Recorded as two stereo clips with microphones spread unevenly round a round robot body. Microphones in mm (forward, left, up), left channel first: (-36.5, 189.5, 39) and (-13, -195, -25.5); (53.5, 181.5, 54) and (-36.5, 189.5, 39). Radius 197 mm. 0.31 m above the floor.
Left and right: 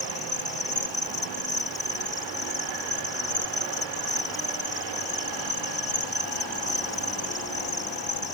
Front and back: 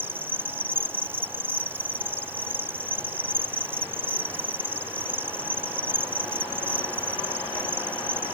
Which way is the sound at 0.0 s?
165° left.